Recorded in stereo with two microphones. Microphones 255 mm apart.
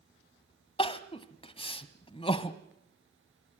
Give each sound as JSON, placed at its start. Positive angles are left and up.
{"t": 0.8, "sound": "crying", "side_deg": 20, "distance_m": 1.0}